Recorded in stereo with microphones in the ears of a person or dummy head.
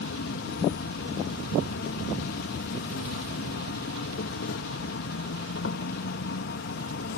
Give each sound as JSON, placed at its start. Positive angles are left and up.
{"t": 0.0, "sound": "an insect", "side_deg": 65}